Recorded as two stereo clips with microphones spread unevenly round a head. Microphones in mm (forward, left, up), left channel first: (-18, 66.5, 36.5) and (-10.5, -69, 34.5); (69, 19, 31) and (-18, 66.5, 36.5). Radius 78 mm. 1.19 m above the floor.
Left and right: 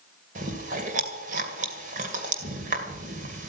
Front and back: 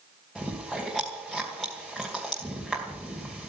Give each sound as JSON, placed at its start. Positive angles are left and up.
{"t": 0.3, "sound": "chewing", "azimuth_deg": -115, "distance_m": 2.5}